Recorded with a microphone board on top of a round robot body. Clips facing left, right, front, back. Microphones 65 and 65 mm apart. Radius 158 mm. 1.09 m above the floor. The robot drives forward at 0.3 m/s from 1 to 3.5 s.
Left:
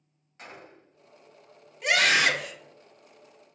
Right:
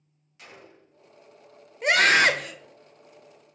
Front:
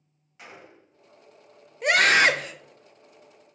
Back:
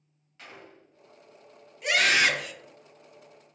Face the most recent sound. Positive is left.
turn(degrees=-75)